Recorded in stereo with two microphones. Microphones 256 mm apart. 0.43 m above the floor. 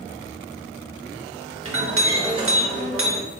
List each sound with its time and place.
1.6 s a clink: 55° right (ahead or behind), 0.7 m